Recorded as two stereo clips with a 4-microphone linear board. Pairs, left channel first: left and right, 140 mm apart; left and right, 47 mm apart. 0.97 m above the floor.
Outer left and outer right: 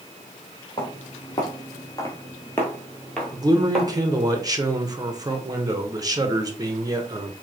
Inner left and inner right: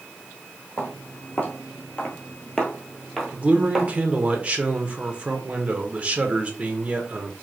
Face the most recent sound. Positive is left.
turn(degrees=-25)  # may be behind; listen again after turning